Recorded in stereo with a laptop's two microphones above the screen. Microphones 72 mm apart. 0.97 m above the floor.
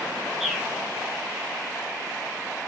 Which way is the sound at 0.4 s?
Centre (ahead or behind).